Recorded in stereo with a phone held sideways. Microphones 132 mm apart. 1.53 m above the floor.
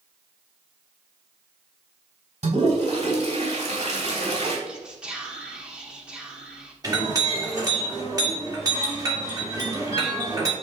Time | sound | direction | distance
2.4 | a toilet flushing | 55° right (ahead or behind) | 3.5 m
4.7 | whispering | 5° right (ahead or behind) | 1.3 m
6.8 | a clink | 25° right (ahead or behind) | 2 m